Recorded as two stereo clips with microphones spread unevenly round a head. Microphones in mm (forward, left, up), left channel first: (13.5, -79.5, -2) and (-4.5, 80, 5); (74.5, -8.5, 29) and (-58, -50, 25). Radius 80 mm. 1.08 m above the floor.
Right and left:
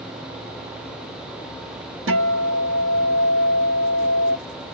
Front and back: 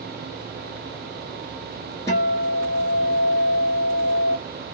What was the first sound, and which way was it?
A guitar, 90° left.